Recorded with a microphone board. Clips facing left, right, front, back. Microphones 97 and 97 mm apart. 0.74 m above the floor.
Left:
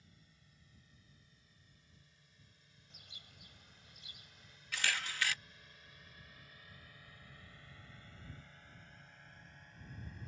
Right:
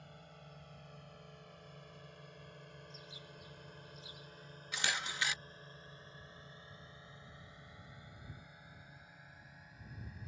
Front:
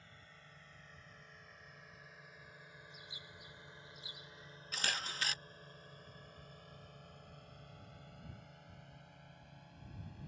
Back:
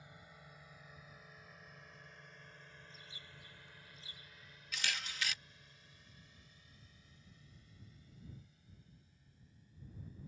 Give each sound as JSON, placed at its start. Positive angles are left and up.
{"t": 0.0, "sound": "a drone", "azimuth_deg": -105}
{"t": 2.9, "sound": "a bird", "azimuth_deg": 75}
{"t": 4.7, "sound": "a camera shutter", "azimuth_deg": -30}